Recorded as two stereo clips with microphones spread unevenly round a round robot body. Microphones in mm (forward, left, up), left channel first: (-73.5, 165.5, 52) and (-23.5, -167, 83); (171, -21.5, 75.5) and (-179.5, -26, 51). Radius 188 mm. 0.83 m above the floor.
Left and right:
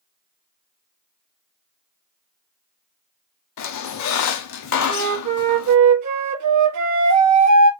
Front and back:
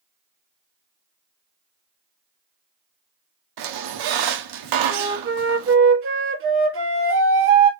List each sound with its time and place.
3.6 s a squeak: 145° left, 0.8 m
4.9 s a flute: 125° right, 1.2 m